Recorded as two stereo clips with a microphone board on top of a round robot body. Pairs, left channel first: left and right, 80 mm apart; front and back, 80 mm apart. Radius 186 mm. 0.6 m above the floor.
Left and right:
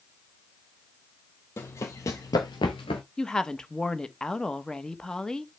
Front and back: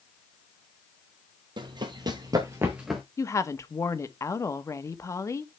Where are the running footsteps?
150° left, 1.3 m; by 3.0 s 80° left, 0.6 m.